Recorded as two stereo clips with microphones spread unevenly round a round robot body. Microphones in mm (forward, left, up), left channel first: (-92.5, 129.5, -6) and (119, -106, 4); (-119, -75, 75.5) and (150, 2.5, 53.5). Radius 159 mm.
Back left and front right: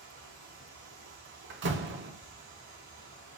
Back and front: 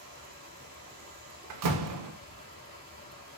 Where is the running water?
30° right, 1.5 m.